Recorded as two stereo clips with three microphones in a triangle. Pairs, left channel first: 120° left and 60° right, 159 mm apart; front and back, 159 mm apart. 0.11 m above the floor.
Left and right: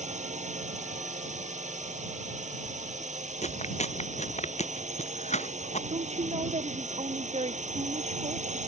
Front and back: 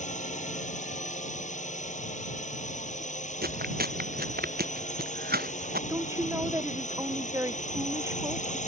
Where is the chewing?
165° left.